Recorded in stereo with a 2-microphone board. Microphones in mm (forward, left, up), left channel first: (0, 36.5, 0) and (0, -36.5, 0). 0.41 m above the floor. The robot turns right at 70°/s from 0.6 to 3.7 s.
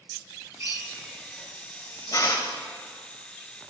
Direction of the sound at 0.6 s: 45° right (ahead or behind).